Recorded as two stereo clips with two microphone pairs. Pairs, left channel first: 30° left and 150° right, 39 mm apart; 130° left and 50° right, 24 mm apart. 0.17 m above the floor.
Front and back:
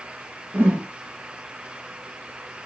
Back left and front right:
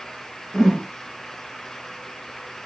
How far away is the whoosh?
About 1.9 m.